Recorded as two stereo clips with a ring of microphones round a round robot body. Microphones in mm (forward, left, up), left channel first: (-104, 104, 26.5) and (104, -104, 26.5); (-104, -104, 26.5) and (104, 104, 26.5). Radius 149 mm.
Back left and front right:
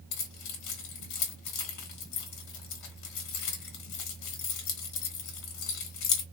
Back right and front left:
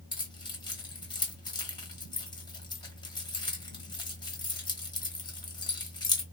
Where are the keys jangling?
150° left, 1.3 m.